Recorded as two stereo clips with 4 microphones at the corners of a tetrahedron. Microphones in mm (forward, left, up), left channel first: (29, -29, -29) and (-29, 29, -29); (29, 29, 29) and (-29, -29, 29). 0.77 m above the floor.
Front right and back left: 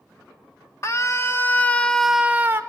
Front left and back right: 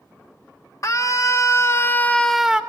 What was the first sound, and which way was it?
A scream, straight ahead.